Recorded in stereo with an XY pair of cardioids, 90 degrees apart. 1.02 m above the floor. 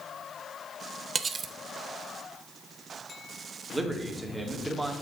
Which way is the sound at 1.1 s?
45° right.